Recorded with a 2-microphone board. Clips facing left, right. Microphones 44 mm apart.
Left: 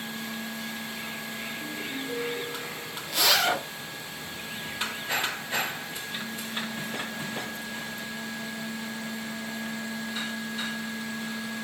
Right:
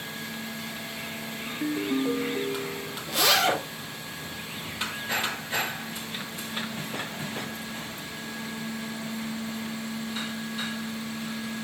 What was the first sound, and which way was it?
A ringtone, 65° right (ahead or behind).